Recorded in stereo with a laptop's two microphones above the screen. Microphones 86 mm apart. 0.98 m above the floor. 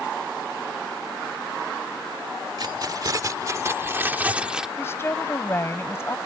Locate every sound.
2.6 s keys jangling: 55° right (ahead or behind); by 4.7 s 5° right (ahead or behind)
4.8 s a woman speaking: 30° left (ahead or behind)